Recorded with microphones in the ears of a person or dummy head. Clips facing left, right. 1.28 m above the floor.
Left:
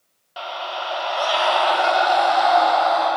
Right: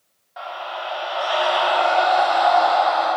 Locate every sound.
0.4 s a scream: 40° left (ahead or behind), 0.7 m; by 3.1 s 85° left, 1.8 m